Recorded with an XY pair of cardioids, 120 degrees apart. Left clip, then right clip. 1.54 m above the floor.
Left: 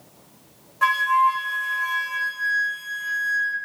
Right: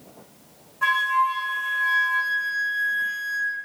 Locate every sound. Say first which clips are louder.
0.8 s a flute: left 2 dB; 50° left, 1.5 m